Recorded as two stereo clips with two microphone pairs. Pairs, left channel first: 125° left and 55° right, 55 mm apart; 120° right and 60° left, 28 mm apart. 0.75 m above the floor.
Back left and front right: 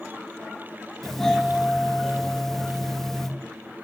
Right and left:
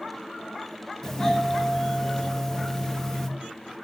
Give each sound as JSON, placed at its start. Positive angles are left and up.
{"t": 1.0, "sound": "a doorbell", "azimuth_deg": -160, "distance_m": 1.1}